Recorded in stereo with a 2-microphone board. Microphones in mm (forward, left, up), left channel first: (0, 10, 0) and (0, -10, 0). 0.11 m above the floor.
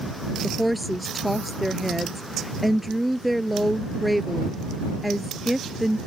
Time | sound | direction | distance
0.4 | a woman speaking | 5° right (ahead or behind) | ?